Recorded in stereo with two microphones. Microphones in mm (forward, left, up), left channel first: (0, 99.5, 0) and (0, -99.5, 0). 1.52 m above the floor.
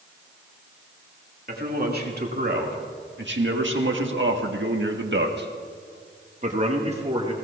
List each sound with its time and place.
1.5 s a man speaking: 50° right (ahead or behind), 2.5 m; by 7.3 s 30° right (ahead or behind), 2.0 m